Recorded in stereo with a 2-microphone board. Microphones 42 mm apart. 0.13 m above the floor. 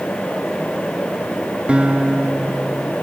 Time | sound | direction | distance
1.7 | a guitar | 25° right (ahead or behind) | 1.1 m